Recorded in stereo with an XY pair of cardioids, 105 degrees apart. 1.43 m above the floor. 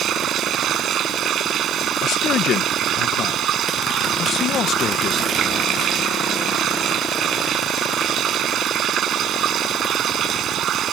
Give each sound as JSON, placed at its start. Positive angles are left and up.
{"t": 0.0, "sound": "running water", "azimuth_deg": -65}
{"t": 2.0, "sound": "a man speaking", "azimuth_deg": 70}